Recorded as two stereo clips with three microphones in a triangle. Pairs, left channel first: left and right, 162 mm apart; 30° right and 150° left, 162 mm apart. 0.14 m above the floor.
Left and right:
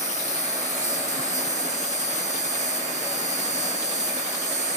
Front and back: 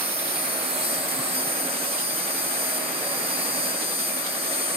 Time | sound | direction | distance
0.0 | an insect | 110° left | 0.9 m